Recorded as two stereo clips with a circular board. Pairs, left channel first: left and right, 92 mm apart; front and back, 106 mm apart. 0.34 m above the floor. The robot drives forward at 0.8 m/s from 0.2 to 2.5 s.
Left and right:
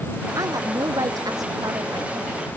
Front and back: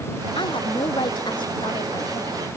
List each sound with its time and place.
0.3 s a woman speaking: 40° right; by 2.4 s 45° right